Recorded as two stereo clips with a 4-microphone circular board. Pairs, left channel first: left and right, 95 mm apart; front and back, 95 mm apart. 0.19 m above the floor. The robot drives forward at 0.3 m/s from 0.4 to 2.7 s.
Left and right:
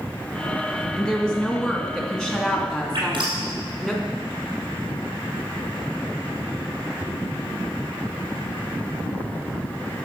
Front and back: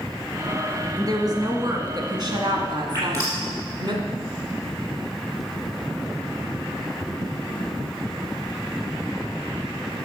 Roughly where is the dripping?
Behind right.